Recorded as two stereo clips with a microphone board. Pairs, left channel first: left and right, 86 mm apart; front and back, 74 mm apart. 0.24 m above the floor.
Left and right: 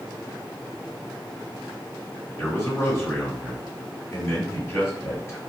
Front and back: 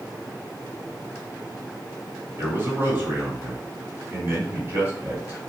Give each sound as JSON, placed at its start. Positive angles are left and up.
{"t": 2.4, "sound": "a man speaking", "azimuth_deg": 135, "distance_m": 2.0}